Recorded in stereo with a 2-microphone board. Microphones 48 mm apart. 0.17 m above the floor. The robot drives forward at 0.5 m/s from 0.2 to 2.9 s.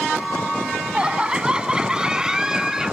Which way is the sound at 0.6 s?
20° right (ahead or behind).